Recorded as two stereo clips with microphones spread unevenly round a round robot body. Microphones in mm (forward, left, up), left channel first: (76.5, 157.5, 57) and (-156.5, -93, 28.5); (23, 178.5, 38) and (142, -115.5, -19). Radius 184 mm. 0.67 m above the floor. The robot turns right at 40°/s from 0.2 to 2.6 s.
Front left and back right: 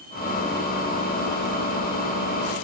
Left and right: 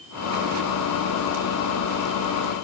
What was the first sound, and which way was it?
Only background noise.